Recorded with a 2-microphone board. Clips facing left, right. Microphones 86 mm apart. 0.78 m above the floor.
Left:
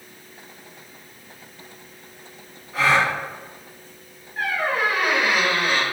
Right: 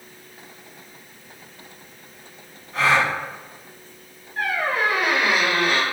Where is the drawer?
No drawer in this recording.